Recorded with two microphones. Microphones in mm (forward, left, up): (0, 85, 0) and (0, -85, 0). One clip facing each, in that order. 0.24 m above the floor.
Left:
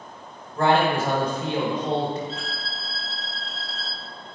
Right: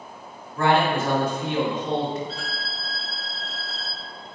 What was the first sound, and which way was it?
A man speaking, 30° left (ahead or behind).